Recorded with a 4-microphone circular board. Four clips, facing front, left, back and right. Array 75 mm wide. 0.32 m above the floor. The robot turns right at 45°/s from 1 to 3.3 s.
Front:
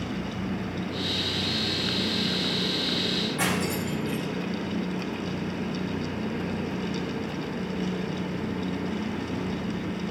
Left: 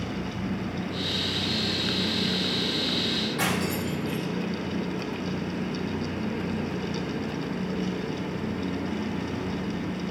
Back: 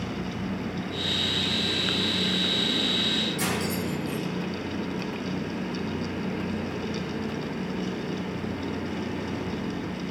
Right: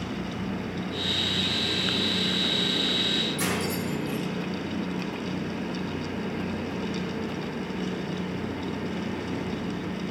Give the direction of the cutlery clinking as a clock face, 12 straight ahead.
10 o'clock.